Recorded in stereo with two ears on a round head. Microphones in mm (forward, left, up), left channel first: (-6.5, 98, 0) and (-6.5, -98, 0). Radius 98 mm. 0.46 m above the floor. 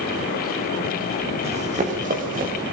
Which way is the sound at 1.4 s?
30° right (ahead or behind).